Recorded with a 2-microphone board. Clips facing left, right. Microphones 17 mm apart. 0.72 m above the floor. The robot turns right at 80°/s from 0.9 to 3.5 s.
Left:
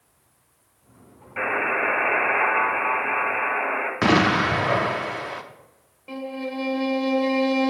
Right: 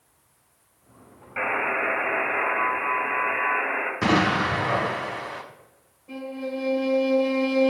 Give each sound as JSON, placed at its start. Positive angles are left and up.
{"t": 1.4, "sound": "a buzzer", "azimuth_deg": -10, "distance_m": 1.9}
{"t": 4.0, "sound": "an explosion", "side_deg": 30, "distance_m": 0.8}
{"t": 6.1, "sound": "a violin", "side_deg": 85, "distance_m": 1.6}